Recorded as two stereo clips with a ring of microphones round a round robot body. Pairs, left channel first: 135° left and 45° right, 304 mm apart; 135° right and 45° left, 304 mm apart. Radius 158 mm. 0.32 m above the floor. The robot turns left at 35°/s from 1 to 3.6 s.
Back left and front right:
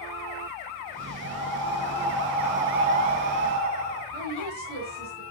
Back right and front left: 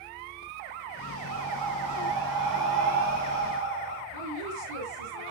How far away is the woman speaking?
About 4.5 m.